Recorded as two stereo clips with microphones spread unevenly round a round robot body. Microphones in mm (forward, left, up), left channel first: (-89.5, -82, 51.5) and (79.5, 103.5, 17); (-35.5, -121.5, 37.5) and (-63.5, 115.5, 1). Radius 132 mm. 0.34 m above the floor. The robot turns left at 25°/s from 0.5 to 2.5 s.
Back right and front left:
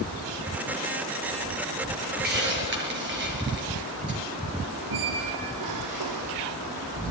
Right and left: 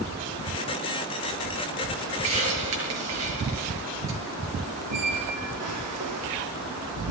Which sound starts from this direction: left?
A hiss, at 2.2 s.